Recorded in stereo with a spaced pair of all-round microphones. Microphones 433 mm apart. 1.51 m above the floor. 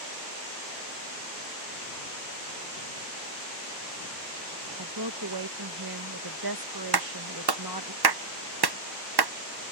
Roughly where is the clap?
Right.